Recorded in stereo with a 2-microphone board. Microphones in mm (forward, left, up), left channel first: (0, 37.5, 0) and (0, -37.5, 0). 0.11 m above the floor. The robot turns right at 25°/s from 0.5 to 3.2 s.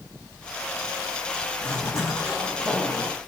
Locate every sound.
1.6 s a zipper: 135° left, 1.8 m; by 3.2 s 175° left, 1.8 m